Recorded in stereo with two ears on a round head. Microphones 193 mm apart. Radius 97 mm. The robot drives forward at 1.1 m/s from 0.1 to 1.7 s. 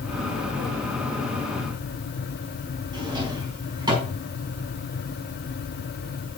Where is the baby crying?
I don't hear a baby crying.